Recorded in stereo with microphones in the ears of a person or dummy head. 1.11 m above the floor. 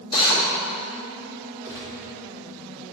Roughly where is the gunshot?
Centre.